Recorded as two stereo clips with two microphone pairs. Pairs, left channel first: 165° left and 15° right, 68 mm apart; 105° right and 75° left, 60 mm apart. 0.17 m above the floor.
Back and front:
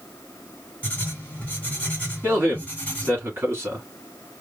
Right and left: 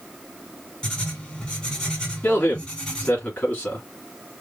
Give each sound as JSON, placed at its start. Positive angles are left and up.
{"t": 0.8, "sound": "writing", "azimuth_deg": -165, "distance_m": 1.7}
{"t": 2.2, "sound": "a man speaking", "azimuth_deg": -50, "distance_m": 2.0}